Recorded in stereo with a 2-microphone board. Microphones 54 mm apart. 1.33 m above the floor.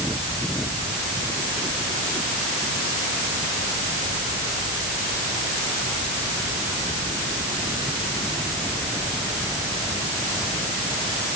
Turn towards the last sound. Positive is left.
No sound to turn to.